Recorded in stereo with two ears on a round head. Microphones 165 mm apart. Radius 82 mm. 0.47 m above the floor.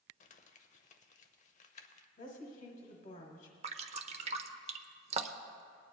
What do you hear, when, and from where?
0.2 s crumpling: 40° left (ahead or behind), 0.7 m
2.2 s a woman speaking: 45° left (ahead or behind), 1.3 m
3.6 s dripping: 35° right (ahead or behind), 0.6 m